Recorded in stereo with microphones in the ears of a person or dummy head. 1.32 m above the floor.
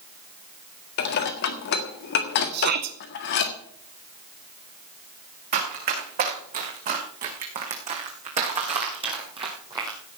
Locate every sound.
1.0 s dishes clattering: 60° left (ahead or behind), 1.6 m
2.5 s a shout: 55° right (ahead or behind), 0.7 m
5.5 s running footsteps: 50° right (ahead or behind), 5 m; by 10.0 s 15° right (ahead or behind), 2.0 m